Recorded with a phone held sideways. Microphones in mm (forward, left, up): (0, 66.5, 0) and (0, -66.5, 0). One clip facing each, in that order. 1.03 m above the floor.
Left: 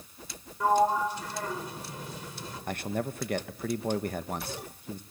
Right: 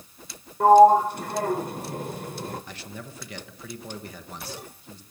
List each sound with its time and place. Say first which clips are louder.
0.6 s a sliding door: right 11 dB; 55° right (ahead or behind), 1.1 m
2.7 s a man speaking: left 8 dB; 50° left (ahead or behind), 1.2 m